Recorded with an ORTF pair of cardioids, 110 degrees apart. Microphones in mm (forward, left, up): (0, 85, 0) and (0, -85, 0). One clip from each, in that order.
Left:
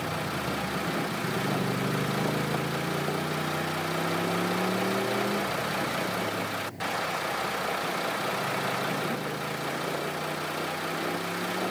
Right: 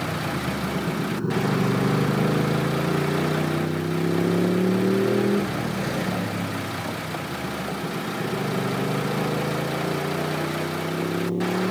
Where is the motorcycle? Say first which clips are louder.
Right 3 dB; 40° right; by 11.7 s 65° right.